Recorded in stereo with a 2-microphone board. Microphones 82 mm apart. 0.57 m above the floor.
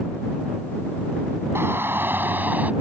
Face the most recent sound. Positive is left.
turn(degrees=-20)  # may be behind; listen again after turning